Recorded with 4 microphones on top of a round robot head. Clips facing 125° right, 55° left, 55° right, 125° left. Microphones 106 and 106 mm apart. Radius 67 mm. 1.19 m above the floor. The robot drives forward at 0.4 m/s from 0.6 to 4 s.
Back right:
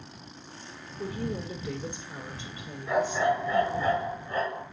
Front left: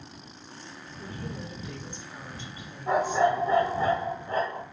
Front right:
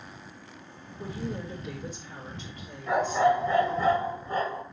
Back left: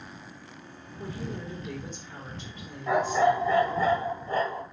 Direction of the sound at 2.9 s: 115° left.